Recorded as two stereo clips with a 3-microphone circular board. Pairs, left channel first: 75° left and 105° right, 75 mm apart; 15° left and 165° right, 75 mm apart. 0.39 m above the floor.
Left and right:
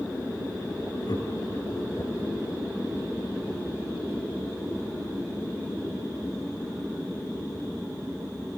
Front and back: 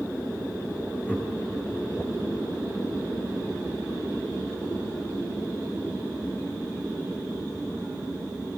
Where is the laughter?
85° left, 5.5 m.